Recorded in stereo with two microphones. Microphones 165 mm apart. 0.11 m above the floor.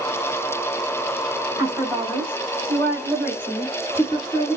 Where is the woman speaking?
20° right (ahead or behind), 1.8 m; by 4.6 s 30° left (ahead or behind), 1.9 m.